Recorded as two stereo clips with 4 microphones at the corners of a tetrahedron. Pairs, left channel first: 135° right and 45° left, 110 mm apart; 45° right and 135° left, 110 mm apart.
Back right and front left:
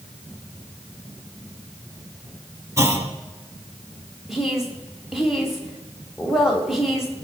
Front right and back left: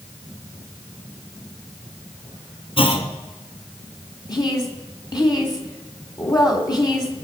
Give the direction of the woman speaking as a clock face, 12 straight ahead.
1 o'clock.